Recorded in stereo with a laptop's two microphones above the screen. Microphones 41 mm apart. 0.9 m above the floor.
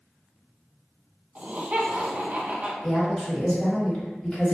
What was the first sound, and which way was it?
Laughter, 40° right (ahead or behind).